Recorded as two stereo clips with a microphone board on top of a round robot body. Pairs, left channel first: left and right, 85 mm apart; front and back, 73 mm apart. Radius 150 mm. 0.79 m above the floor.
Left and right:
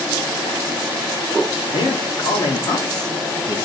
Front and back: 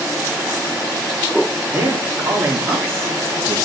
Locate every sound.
1.7 s a man speaking: 120° left, 2.5 m; by 3.6 s 135° left, 1.8 m